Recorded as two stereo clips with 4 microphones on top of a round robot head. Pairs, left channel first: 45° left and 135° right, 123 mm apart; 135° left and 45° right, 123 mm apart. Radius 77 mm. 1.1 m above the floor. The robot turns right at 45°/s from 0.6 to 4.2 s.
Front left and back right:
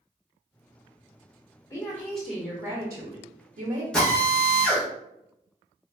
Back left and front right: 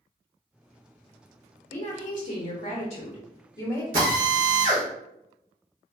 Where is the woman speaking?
110° left, 0.8 m; by 3.8 s 155° right, 0.8 m.